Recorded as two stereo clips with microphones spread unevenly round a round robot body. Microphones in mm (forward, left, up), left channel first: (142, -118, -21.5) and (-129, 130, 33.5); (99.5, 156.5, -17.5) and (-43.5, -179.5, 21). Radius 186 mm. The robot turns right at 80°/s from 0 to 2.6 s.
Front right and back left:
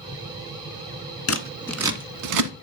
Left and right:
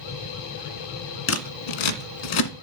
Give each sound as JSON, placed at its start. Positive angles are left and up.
{"t": 1.3, "sound": "scissors", "azimuth_deg": 10, "distance_m": 1.2}